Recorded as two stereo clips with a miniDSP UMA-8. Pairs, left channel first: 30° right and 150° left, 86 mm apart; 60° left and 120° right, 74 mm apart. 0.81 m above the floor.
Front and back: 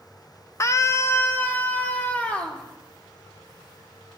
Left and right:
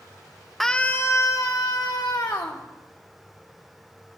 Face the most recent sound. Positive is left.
turn(degrees=40)